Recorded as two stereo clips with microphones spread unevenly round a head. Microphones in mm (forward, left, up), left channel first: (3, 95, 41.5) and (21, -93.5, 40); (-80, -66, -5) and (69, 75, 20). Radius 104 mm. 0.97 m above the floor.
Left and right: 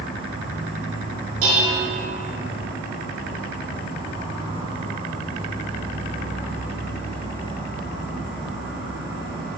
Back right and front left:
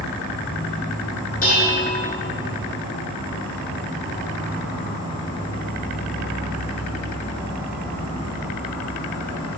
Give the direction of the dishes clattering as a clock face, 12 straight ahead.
3 o'clock.